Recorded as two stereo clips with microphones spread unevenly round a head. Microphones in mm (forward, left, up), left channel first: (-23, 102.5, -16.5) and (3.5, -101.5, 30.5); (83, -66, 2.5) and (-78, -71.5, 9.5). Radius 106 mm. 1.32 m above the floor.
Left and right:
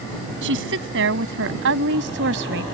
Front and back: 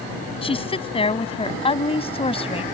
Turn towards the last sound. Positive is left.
turn(degrees=-50)